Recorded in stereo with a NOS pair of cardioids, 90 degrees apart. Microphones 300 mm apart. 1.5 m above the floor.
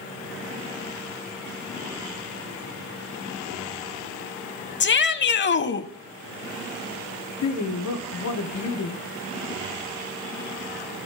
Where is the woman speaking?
60° left, 1.3 m.